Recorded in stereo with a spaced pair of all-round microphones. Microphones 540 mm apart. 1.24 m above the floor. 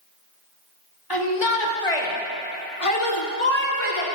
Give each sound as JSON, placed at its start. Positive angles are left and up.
{"t": 1.1, "sound": "a shout", "side_deg": 40, "distance_m": 1.6}